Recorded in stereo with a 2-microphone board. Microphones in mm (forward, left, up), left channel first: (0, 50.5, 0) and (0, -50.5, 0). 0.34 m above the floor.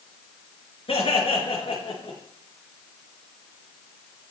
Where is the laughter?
75° left (ahead or behind), 4.5 m.